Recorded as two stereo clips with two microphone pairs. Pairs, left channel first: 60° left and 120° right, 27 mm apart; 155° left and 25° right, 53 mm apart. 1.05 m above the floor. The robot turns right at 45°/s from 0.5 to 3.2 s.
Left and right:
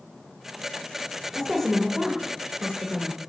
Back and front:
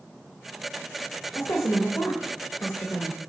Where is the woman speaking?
145° left, 1.1 m; by 3.2 s 130° right, 1.1 m.